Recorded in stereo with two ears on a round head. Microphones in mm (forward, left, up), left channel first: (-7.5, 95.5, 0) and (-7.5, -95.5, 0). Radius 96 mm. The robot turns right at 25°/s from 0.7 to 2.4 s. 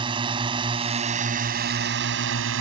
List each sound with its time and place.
0.0 s a drone: 155° right; by 2.6 s 115° right